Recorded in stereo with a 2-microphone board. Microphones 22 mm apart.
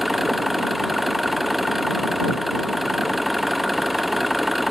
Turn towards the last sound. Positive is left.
turn(degrees=0)  # may be behind; listen again after turning